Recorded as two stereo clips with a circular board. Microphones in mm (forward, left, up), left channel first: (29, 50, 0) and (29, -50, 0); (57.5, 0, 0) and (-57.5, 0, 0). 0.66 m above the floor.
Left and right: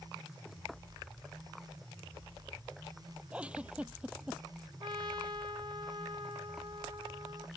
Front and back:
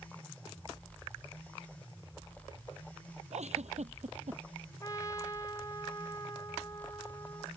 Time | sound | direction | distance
3.3 | a giggle | 170° right | ?
4.8 | a trumpet | 55° right | ?